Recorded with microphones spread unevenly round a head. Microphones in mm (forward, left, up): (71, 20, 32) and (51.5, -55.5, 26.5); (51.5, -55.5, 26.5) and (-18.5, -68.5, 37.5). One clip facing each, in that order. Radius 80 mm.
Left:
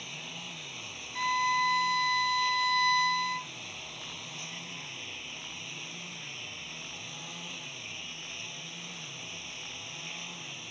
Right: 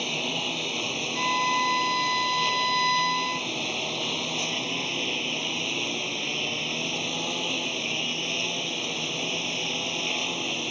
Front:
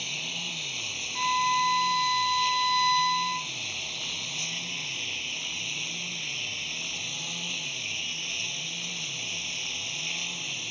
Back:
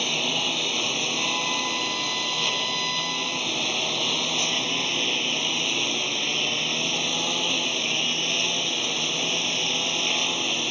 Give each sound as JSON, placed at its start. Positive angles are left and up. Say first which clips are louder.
{"t": 0.0, "sound": "a lawn mower", "louder": "right 14 dB, back 11 dB", "azimuth_deg": -145}
{"t": 1.1, "sound": "a violin", "louder": "right 3 dB, front 9 dB", "azimuth_deg": -25}